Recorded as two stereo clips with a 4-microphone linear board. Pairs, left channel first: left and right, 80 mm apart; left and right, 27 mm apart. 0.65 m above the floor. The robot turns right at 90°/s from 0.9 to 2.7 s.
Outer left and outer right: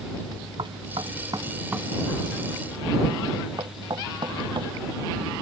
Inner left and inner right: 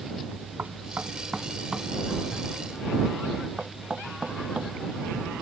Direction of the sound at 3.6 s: 65° right (ahead or behind).